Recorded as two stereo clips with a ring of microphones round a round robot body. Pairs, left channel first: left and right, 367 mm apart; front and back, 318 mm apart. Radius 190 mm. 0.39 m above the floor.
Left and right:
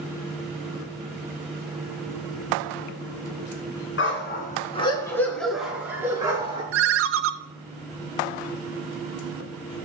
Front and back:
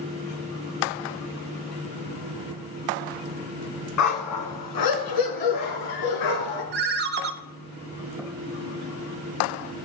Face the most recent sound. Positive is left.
turn(degrees=-130)